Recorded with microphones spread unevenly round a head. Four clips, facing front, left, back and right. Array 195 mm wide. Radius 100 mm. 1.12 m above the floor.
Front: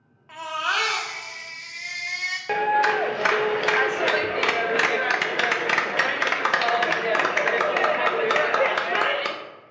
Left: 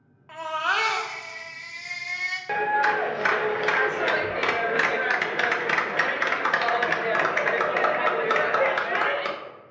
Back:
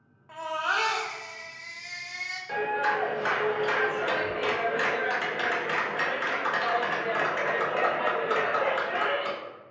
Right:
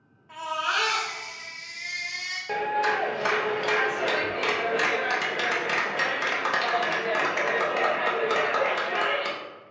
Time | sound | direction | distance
0.3 | a baby crying | 70° left | 1.0 m
2.5 | a clap | 15° left | 0.5 m